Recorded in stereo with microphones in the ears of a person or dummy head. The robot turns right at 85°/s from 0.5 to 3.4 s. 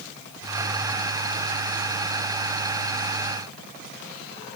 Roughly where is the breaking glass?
I don't hear breaking glass.